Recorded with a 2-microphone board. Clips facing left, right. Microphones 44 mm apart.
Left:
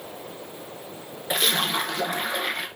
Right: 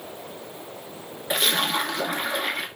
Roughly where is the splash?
Centre.